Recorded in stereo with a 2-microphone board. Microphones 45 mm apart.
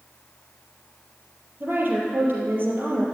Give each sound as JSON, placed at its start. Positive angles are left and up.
{"t": 1.6, "sound": "a woman speaking", "side_deg": -50, "distance_m": 4.5}